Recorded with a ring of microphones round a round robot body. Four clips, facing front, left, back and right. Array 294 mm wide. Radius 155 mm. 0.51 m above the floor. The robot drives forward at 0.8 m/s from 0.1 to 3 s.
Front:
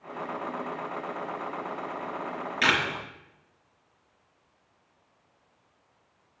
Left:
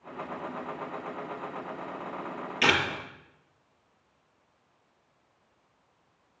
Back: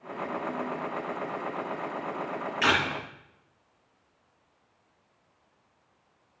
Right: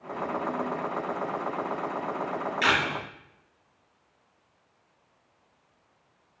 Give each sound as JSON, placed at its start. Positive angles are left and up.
{"t": 2.6, "sound": "a camera shutter", "azimuth_deg": 55, "distance_m": 3.5}